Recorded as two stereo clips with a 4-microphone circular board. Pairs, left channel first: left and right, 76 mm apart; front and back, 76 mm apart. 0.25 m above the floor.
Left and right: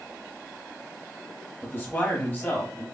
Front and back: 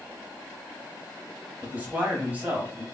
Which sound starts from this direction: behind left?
A man speaking, at 1.6 s.